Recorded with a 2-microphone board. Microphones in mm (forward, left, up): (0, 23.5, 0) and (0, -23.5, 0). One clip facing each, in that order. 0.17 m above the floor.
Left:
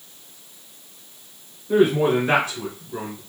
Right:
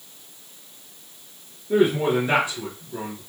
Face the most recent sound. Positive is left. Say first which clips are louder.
# left 2 dB
turn(degrees=45)  # may be behind; listen again after turning